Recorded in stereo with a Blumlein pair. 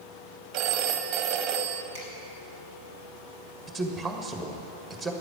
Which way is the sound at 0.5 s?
40° right.